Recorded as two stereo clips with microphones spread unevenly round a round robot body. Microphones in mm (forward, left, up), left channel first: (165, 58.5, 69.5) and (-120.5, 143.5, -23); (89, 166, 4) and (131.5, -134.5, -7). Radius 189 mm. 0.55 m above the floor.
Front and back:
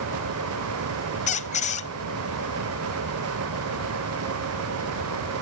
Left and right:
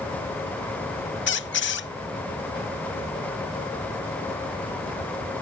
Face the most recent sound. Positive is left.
turn(degrees=45)